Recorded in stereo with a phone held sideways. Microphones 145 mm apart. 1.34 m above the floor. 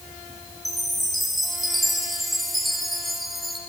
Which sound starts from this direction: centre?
A chime, at 0.7 s.